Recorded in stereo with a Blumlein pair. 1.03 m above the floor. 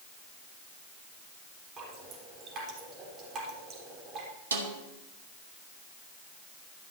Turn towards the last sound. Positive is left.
turn(degrees=-70)